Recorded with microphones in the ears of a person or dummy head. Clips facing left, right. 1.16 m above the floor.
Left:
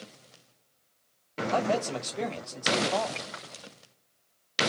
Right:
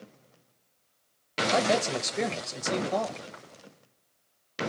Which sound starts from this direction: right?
A man speaking, at 1.5 s.